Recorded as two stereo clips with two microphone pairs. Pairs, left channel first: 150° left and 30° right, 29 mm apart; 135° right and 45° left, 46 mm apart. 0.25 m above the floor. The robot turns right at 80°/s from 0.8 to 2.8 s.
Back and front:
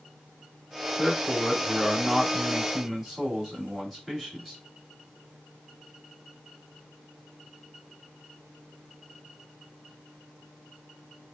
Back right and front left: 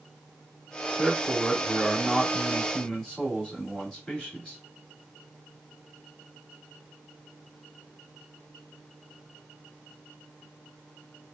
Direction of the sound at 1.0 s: 120° left.